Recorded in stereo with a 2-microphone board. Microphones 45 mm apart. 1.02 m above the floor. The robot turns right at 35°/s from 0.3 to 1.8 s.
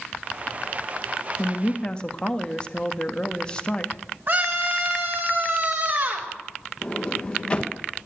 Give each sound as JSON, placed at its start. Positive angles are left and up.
{"t": 1.4, "sound": "a woman speaking", "side_deg": 35, "distance_m": 1.4}
{"t": 4.3, "sound": "a scream", "side_deg": -45, "distance_m": 4.5}
{"t": 6.8, "sound": "a sliding door", "side_deg": 25, "distance_m": 1.1}